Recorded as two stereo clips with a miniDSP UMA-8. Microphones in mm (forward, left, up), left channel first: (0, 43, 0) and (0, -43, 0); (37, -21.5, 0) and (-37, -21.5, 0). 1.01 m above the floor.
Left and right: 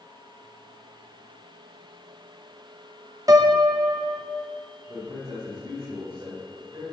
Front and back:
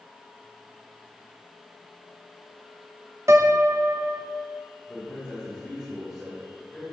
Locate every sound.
3.3 s a piano: 135° right, 0.8 m
4.9 s a man speaking: 100° right, 4 m